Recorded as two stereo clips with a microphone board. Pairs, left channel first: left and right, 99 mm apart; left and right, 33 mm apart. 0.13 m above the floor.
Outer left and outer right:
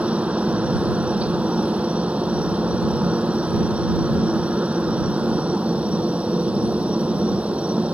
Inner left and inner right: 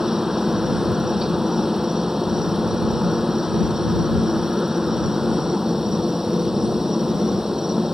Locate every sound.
0.0 s a helicopter: 10° right (ahead or behind)